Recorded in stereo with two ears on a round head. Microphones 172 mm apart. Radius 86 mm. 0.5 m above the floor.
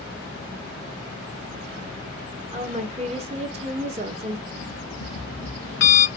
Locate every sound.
2.5 s a woman speaking: 35° right (ahead or behind), 1.1 m
4.5 s an alarm clock: 70° left (ahead or behind), 2.5 m